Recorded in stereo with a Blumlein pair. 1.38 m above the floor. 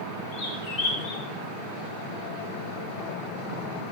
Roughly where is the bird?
Ahead left.